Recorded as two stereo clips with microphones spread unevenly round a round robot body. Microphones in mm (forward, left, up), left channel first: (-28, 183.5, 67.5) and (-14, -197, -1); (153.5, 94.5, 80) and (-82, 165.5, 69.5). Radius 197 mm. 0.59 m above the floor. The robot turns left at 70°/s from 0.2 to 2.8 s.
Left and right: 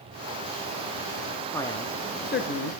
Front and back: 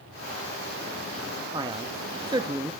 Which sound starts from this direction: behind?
A man speaking, at 1.5 s.